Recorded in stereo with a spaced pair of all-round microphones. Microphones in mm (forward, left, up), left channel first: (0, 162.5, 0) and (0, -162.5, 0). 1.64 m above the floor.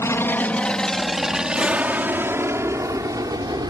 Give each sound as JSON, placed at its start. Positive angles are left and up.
{"t": 0.0, "sound": "an aircraft", "side_deg": 10}